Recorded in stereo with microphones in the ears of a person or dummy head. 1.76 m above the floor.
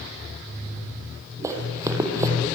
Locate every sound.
1.4 s running footsteps: 20° right (ahead or behind), 4 m